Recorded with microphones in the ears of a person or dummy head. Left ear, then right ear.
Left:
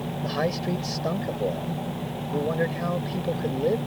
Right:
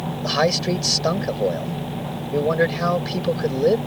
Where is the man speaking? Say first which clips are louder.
Right 8 dB; 35° right (ahead or behind).